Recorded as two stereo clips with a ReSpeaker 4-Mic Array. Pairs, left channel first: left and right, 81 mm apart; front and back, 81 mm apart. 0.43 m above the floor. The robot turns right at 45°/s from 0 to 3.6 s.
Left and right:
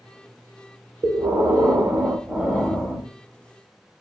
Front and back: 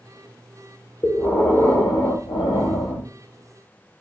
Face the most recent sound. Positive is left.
turn(degrees=45)